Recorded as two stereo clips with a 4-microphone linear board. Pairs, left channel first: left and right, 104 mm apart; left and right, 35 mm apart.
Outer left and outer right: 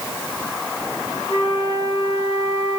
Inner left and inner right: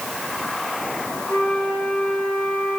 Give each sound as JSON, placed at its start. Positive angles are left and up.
{"t": 1.3, "sound": "a flute", "side_deg": 60, "distance_m": 5.0}